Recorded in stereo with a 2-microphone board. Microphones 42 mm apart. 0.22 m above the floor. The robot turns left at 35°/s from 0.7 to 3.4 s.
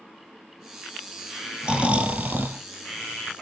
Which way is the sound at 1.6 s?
20° right.